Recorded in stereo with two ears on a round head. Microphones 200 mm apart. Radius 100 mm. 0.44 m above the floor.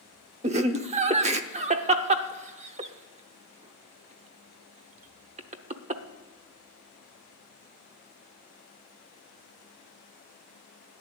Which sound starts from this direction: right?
Laughter, at 0.4 s.